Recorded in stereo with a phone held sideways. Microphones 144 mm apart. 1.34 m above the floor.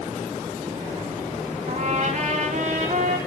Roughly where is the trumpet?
Right.